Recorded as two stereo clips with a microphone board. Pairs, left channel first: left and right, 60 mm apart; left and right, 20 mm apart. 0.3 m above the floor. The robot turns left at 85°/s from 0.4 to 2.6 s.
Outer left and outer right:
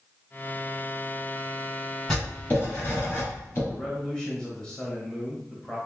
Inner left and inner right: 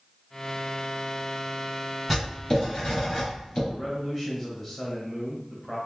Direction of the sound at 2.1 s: 5° left (ahead or behind).